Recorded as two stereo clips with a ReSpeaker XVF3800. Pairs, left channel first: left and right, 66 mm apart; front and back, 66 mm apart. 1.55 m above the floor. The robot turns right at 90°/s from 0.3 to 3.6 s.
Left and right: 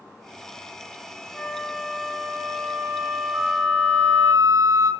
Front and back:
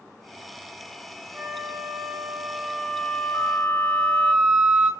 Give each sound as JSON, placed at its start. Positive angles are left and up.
{"t": 1.3, "sound": "a flute", "azimuth_deg": 150, "distance_m": 1.3}
{"t": 3.3, "sound": "a flute", "azimuth_deg": -110, "distance_m": 2.5}